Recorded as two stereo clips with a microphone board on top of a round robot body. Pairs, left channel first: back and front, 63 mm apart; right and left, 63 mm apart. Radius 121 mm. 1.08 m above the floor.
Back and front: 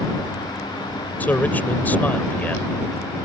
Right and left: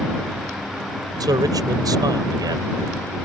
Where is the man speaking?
115° left.